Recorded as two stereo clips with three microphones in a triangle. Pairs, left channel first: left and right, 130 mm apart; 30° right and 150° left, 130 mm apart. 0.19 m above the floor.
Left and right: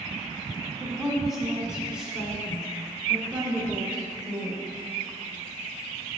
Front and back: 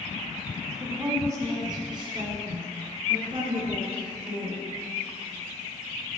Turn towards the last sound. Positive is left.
turn(degrees=-170)